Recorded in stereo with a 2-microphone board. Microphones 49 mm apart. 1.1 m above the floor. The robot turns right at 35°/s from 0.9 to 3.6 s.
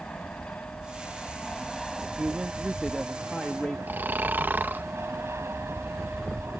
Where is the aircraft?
145° left; by 6.6 s 120° right.